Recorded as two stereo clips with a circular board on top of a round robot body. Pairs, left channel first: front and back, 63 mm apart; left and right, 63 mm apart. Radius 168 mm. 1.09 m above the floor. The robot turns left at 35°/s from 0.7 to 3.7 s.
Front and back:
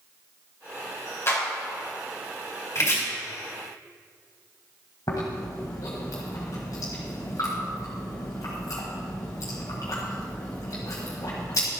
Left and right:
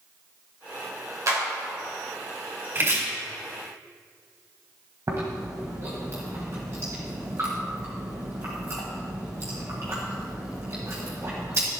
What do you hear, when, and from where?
1.3 s a clap: 50° right, 4 m; by 1.4 s 55° right, 4 m
2.8 s chopping: 40° right, 4 m; by 3.0 s 50° right, 4 m
5.1 s chewing: 40° right, 1.4 m